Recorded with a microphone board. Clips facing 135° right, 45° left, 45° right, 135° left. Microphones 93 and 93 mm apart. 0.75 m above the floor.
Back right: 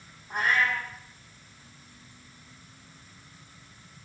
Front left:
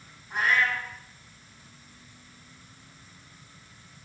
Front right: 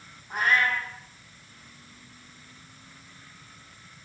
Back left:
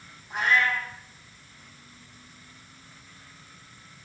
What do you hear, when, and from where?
0.3 s a cat meowing: 90° right, 6 m